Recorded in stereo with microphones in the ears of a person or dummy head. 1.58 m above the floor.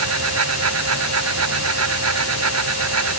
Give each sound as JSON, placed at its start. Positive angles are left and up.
{"t": 0.0, "sound": "a fan", "side_deg": -90}